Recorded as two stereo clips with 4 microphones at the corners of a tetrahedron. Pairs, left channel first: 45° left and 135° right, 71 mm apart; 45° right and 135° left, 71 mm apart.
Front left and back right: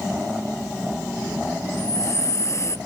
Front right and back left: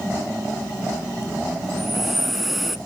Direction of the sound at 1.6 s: 45° left.